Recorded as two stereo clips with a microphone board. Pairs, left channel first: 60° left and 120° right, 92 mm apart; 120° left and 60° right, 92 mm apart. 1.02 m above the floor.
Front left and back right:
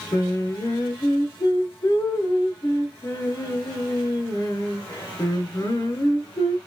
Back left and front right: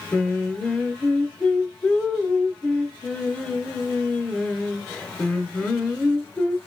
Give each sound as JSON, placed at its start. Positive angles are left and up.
{"t": 0.1, "sound": "singing", "azimuth_deg": 45, "distance_m": 0.7}